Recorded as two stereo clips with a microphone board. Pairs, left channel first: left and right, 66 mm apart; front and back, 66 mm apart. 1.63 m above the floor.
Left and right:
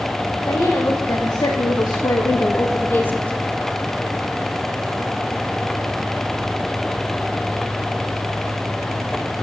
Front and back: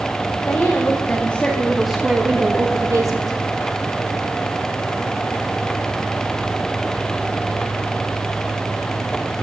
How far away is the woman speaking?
About 2.5 m.